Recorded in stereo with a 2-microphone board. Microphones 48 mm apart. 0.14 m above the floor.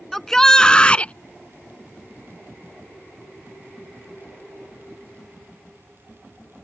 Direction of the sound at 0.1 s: 5° left (ahead or behind).